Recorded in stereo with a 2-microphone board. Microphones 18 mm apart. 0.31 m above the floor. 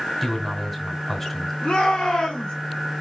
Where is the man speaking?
10° left (ahead or behind), 2.5 m.